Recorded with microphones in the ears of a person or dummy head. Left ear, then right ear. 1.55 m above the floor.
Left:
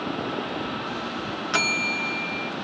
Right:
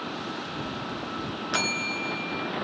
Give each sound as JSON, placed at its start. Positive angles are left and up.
{"t": 1.5, "sound": "a bell", "side_deg": 5, "distance_m": 0.8}